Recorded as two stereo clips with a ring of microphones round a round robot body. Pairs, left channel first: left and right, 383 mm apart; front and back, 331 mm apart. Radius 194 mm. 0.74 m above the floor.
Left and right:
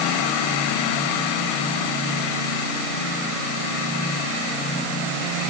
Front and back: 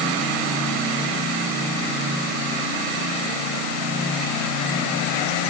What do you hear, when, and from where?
Only background noise.